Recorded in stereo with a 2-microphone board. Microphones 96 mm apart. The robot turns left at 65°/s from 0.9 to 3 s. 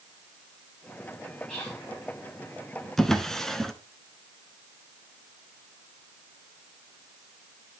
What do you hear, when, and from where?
1.5 s whispering: 15° left (ahead or behind), 6.5 m; by 1.8 s 35° left (ahead or behind), 6.5 m
3.0 s a drawer: 5° left (ahead or behind), 0.7 m